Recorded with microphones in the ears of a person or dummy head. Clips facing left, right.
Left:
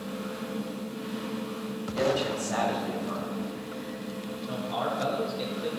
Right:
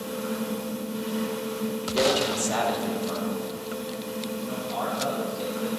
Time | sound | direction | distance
0.0 | a fan | 60° right (ahead or behind) | 1.0 m
1.9 | a man speaking | 45° right (ahead or behind) | 2 m
4.5 | a man speaking | 25° left (ahead or behind) | 1.6 m